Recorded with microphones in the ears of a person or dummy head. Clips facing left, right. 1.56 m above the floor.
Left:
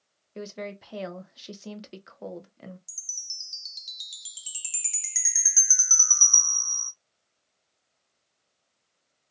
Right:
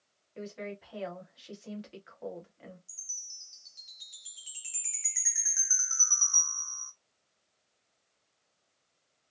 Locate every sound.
0.3 s a woman speaking: 65° left (ahead or behind), 1.0 m
2.9 s a chime: 60° left (ahead or behind), 0.7 m